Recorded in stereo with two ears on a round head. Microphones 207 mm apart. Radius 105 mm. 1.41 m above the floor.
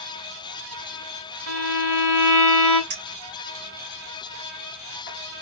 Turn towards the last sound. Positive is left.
turn(degrees=-65)  # may be behind; listen again after turning